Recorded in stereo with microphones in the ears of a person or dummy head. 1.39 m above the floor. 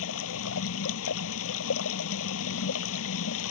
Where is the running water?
85° left.